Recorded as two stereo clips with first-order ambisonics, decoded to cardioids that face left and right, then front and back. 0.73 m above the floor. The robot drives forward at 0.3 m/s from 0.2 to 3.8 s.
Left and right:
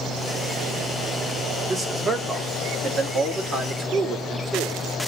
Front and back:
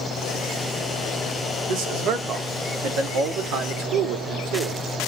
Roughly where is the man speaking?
Behind.